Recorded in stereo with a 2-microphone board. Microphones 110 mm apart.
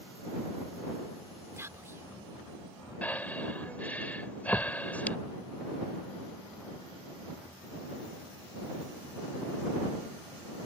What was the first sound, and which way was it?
Whispering, 25° right (ahead or behind).